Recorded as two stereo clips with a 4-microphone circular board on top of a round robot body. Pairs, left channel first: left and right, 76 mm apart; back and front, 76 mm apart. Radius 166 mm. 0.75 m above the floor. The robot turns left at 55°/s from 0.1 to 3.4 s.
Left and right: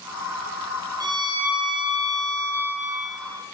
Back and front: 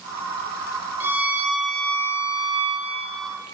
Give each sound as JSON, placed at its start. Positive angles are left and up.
{"t": 1.0, "sound": "a violin", "azimuth_deg": -60, "distance_m": 2.0}